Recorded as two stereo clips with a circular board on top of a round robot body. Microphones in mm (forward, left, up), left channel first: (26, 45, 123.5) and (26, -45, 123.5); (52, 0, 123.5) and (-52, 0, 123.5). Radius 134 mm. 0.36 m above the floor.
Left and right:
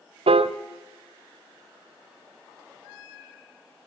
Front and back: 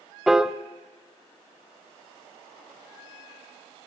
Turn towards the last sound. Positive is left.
turn(degrees=-95)